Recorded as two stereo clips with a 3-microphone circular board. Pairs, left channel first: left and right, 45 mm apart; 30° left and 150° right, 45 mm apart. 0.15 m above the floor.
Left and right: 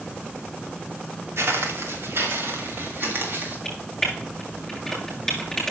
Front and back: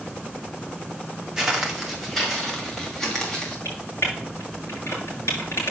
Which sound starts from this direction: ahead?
Typing on a keyboard, at 3.6 s.